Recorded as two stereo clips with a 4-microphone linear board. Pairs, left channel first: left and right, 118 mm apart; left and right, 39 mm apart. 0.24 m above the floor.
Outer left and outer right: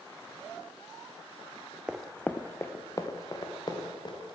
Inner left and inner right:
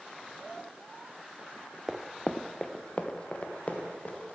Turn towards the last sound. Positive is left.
turn(degrees=40)  # may be behind; listen again after turning